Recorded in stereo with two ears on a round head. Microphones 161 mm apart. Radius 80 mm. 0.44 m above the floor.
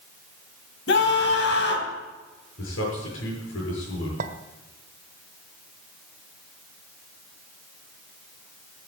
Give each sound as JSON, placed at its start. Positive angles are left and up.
{"t": 0.9, "sound": "a scream", "side_deg": 65, "distance_m": 3.0}
{"t": 2.6, "sound": "a man speaking", "side_deg": 85, "distance_m": 7.0}
{"t": 4.2, "sound": "a clink", "side_deg": -45, "distance_m": 1.3}